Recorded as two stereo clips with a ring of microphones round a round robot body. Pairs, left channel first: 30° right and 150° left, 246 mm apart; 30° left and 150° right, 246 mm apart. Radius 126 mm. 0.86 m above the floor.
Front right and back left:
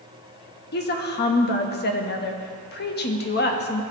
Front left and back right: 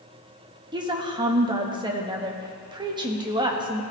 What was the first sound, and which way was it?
A woman speaking, 80° right.